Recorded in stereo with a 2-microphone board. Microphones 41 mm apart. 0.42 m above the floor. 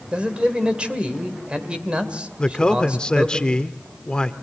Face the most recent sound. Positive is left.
turn(degrees=20)  # may be behind; listen again after turning